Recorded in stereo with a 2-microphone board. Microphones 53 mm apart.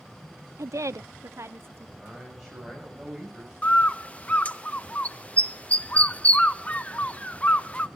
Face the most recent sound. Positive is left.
turn(degrees=25)  # may be behind; listen again after turning